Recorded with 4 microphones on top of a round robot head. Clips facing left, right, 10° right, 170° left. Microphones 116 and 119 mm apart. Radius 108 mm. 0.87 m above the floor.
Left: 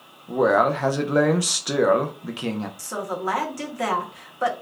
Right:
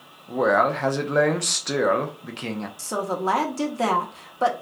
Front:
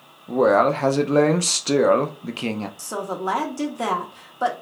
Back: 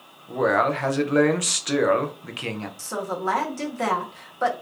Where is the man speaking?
15° left, 0.5 m.